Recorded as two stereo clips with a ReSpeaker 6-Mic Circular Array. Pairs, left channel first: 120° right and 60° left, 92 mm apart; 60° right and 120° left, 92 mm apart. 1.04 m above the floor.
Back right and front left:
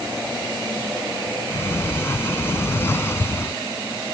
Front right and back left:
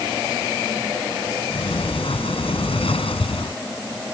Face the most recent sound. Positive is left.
turn(degrees=-55)